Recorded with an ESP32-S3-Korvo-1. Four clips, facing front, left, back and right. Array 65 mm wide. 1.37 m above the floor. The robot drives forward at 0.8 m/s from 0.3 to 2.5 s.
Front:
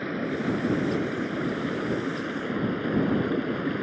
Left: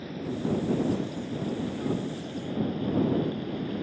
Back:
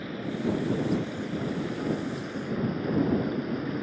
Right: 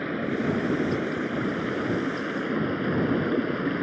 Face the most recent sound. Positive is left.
turn(degrees=-65)